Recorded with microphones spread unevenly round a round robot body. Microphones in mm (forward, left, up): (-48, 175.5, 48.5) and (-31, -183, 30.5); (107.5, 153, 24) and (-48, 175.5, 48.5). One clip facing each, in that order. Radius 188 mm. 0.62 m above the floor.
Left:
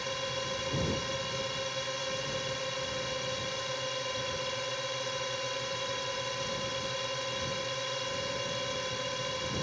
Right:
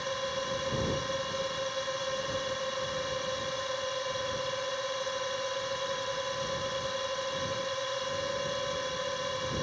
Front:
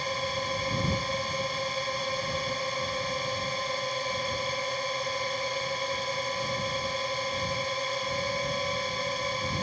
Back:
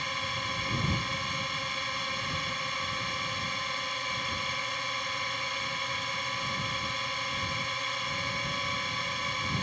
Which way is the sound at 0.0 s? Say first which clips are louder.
Right 3 dB, front 7 dB; 40° left.